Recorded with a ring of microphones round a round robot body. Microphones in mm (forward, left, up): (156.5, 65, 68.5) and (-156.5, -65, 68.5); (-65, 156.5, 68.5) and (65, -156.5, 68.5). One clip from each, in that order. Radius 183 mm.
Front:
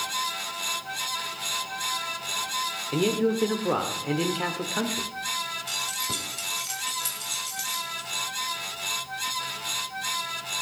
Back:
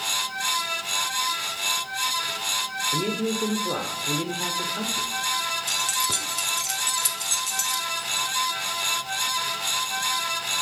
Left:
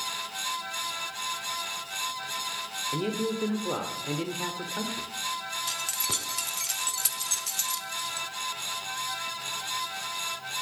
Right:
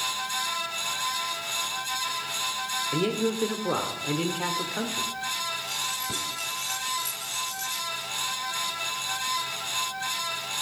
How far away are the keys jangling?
About 1.6 m.